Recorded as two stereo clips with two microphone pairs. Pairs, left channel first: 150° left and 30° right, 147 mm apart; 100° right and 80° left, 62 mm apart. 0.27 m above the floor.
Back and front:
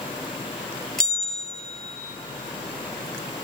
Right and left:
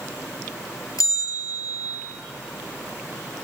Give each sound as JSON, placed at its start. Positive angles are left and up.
{"t": 1.0, "sound": "a bell", "azimuth_deg": -125, "distance_m": 1.1}